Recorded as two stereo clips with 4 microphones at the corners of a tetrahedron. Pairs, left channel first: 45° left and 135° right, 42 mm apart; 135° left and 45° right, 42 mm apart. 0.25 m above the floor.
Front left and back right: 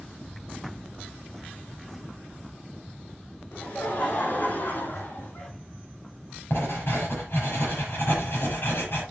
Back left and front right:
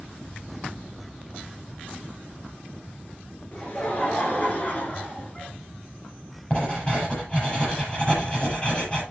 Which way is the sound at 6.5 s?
70° left.